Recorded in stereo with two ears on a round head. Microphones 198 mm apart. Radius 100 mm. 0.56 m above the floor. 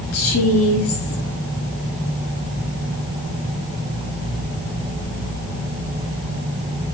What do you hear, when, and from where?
0.1 s a woman speaking: 70° left (ahead or behind), 6.5 m